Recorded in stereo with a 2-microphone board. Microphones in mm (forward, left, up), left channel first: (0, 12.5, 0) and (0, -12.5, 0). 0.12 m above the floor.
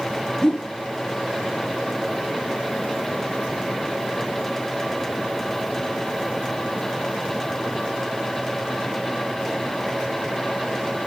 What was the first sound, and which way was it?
A whoosh, 25° left (ahead or behind).